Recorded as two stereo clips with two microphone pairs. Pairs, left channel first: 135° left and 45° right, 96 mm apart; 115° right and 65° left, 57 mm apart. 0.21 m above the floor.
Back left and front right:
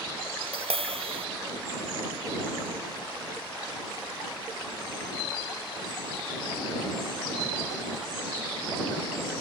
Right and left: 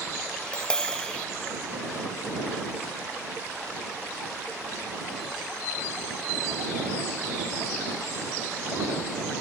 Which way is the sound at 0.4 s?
35° right.